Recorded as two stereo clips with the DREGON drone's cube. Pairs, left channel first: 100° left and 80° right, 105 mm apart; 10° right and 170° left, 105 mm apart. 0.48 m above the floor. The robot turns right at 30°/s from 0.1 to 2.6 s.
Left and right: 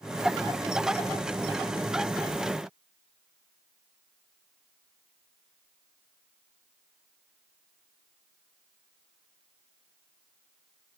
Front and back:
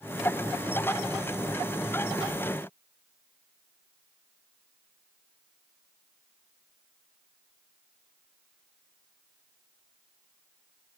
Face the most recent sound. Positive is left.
No sound to turn to.